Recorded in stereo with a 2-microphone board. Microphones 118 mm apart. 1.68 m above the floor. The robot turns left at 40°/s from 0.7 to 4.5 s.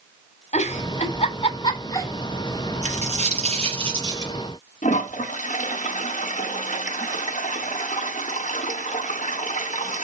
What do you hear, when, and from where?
0.5 s a giggle: 65° left (ahead or behind), 2.5 m; by 2.1 s 25° left (ahead or behind), 2.5 m
2.8 s a dropped coin: 95° right, 4 m; by 4.3 s 155° right, 4 m
4.8 s a toilet flushing: 85° left, 1.2 m